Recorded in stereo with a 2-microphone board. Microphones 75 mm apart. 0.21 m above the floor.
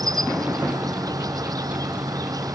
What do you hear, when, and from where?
0.0 s an insect: 55° right (ahead or behind)